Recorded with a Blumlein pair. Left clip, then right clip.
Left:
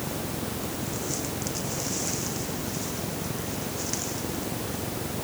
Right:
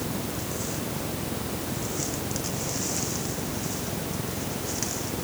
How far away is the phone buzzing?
No phone buzzing in this recording.